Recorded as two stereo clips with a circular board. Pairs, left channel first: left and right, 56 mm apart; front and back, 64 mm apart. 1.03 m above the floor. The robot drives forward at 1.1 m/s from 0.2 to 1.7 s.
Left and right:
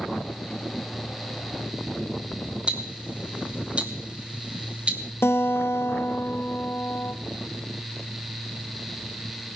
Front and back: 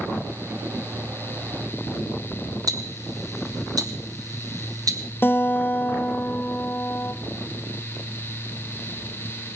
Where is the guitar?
55° left, 0.9 m.